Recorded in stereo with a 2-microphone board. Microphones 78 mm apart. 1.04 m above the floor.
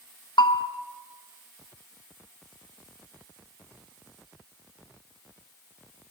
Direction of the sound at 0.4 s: 85° left.